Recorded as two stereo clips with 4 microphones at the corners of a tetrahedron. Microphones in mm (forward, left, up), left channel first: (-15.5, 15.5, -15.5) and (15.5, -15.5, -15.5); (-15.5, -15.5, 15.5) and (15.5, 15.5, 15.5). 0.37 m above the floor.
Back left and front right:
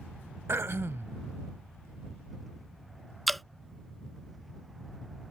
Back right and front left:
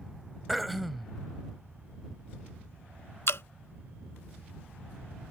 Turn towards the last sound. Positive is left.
turn(degrees=-140)